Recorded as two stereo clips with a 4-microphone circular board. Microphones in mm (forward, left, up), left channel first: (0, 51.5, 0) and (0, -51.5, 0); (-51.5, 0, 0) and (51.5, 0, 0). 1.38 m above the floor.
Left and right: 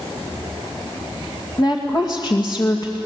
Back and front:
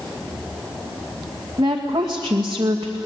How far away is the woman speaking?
About 2 m.